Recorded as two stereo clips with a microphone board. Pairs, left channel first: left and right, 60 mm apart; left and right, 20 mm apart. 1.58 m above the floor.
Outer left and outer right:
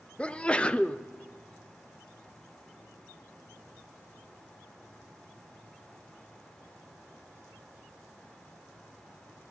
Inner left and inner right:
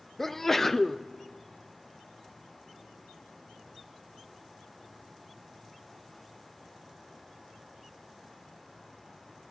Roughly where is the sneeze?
Centre.